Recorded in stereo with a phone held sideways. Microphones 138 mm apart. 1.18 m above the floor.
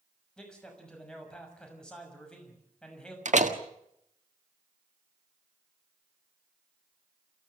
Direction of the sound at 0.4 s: 5° left (ahead or behind).